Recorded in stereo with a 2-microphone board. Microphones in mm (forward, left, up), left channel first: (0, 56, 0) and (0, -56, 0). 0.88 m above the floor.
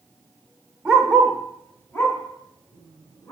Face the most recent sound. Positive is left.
turn(degrees=35)  # may be behind; listen again after turning